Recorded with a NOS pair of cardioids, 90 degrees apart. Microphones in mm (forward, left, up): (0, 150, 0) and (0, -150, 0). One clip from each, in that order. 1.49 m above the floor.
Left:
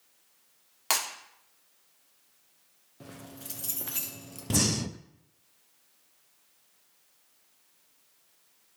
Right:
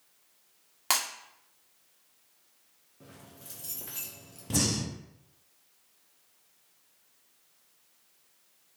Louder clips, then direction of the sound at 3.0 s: Left 6 dB; 40° left.